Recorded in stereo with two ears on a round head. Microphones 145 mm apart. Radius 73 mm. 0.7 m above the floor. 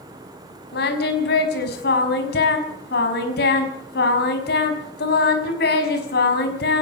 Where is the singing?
70° left (ahead or behind), 5 m.